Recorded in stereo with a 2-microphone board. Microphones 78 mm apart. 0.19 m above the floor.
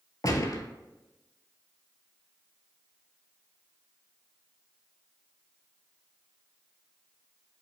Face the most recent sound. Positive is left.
turn(degrees=50)  # may be behind; listen again after turning